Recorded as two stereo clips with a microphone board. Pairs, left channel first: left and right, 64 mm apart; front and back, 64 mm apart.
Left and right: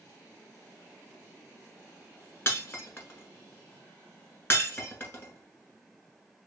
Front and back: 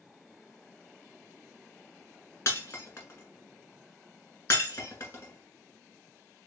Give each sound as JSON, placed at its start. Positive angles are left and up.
{"t": 2.5, "sound": "breaking glass", "azimuth_deg": 40, "distance_m": 1.4}